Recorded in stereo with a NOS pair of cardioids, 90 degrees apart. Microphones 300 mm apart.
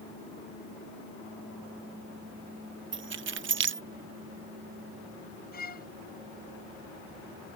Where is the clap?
I don't hear a clap.